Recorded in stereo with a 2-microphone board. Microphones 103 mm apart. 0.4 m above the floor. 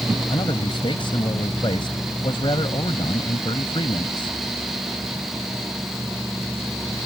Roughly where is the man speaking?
Left.